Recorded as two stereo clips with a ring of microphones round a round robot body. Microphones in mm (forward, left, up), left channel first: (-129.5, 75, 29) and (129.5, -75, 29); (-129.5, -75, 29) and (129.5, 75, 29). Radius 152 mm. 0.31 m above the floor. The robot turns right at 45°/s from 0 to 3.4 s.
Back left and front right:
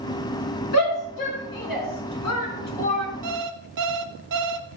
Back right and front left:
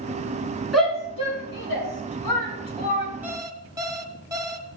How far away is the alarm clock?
About 1.3 m.